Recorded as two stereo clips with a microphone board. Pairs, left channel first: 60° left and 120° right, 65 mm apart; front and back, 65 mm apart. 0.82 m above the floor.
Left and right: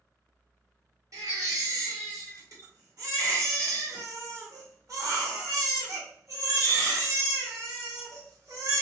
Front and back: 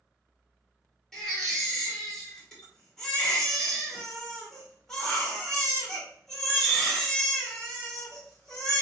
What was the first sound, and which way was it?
A baby crying, 80° right.